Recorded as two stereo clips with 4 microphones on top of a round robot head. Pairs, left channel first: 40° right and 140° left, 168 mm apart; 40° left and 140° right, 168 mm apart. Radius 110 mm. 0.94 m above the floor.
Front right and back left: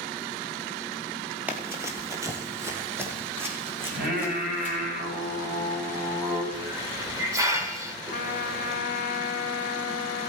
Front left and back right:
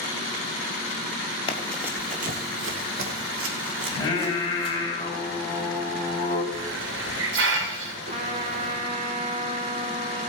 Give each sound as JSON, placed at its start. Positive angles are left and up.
{"t": 1.5, "sound": "running footsteps", "azimuth_deg": 65, "distance_m": 1.0}
{"t": 3.9, "sound": "singing", "azimuth_deg": 105, "distance_m": 4.5}
{"t": 6.5, "sound": "a hiss", "azimuth_deg": -145, "distance_m": 1.7}
{"t": 8.1, "sound": "a trumpet", "azimuth_deg": -85, "distance_m": 1.3}